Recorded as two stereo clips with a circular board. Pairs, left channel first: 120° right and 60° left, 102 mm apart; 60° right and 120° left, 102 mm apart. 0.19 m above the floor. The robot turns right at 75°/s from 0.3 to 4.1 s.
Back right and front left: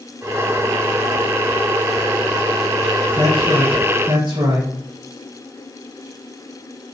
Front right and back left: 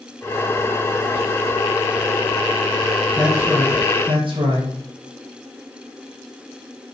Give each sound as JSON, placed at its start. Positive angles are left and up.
{"t": 3.2, "sound": "a man speaking", "azimuth_deg": 25, "distance_m": 4.0}